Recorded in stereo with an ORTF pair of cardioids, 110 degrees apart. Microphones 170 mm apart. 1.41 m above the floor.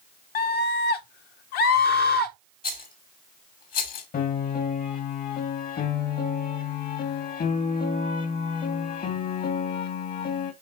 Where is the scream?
65° left, 1.3 m.